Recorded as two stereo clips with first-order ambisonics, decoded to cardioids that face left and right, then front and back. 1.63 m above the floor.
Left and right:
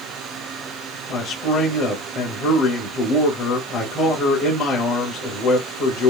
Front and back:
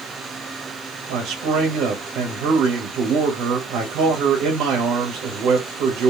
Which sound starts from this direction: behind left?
A man speaking, at 1.1 s.